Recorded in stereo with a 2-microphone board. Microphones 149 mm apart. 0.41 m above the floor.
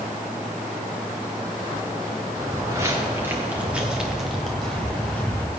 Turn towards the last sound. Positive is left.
turn(degrees=10)  # may be behind; listen again after turning